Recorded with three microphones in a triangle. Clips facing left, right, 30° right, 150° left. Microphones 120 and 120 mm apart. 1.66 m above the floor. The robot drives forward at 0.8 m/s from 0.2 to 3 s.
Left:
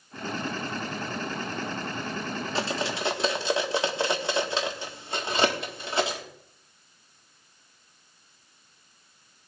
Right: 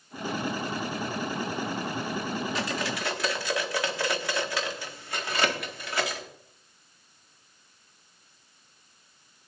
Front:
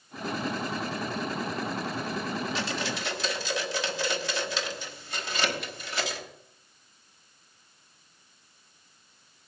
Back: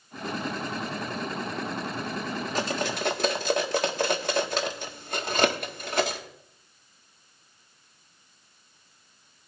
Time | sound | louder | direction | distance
2.5 | cutlery clinking | left 2 dB, back 3 dB | 135° left | 1.4 m